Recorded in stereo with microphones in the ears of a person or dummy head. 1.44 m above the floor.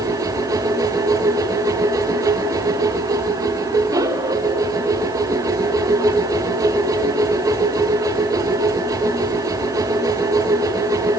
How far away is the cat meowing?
No cat meowing in this recording.